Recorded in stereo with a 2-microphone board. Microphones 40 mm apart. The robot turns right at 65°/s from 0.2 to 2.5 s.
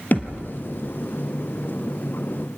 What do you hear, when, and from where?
0.1 s a thud: 45° left (ahead or behind), 2.5 m